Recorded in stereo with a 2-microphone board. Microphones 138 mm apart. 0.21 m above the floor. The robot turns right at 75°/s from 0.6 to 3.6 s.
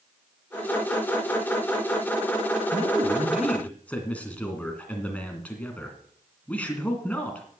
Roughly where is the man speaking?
Ahead right.